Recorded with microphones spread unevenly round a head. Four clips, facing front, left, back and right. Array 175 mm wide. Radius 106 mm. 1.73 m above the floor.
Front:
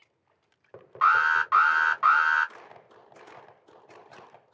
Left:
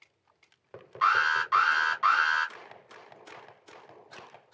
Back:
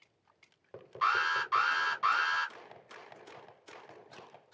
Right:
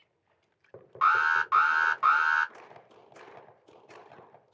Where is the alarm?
25° right, 1.5 m.